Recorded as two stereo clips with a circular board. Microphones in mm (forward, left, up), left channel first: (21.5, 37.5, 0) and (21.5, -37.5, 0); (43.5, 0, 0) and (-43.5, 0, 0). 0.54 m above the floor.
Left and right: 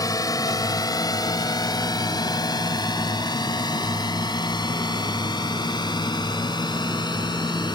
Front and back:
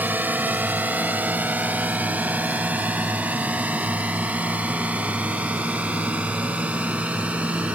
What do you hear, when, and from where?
0.0 s a drone: 115° left; by 7.8 s 105° left